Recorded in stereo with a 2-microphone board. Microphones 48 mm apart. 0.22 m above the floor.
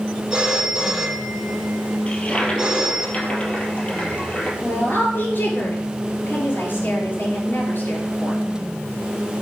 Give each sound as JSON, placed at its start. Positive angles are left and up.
{"t": 0.3, "sound": "a phone ringing", "side_deg": -15, "distance_m": 5.5}
{"t": 2.1, "sound": "a toilet flushing", "side_deg": 25, "distance_m": 2.5}
{"t": 4.6, "sound": "a woman speaking", "side_deg": 45, "distance_m": 4.0}